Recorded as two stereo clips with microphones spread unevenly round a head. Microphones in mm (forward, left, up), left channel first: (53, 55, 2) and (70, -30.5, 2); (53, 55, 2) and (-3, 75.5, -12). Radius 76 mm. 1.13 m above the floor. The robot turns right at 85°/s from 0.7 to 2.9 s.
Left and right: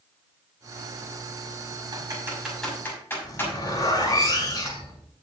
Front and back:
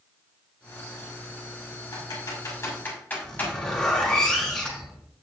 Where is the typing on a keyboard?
45° right, 6 m; by 3.5 s 40° left, 6 m.